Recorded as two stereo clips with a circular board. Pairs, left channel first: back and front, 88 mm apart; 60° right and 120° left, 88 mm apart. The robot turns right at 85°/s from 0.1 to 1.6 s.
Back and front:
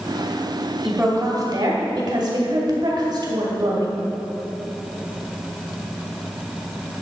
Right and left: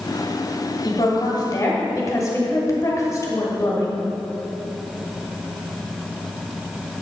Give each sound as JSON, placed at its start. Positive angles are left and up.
{"t": 0.8, "sound": "a woman speaking", "azimuth_deg": -80, "distance_m": 2.0}